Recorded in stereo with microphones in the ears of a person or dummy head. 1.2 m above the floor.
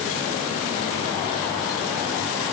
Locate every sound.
Only background noise.